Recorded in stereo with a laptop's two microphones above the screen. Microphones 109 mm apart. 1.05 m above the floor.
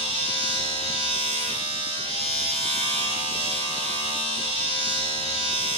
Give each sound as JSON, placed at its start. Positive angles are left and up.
{"t": 0.0, "sound": "a machine running", "side_deg": 55, "distance_m": 6.0}